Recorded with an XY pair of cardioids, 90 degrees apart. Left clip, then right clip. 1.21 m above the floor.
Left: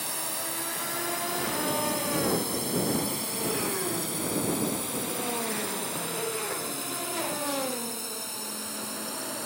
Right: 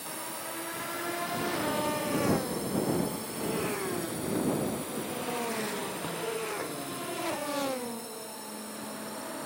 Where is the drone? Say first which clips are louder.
Left 4 dB; 60° left.